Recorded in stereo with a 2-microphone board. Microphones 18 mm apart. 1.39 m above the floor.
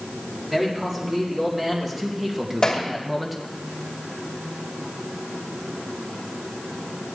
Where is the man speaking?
15° right (ahead or behind), 4 m; by 3.4 s centre (ahead or behind), 1.3 m.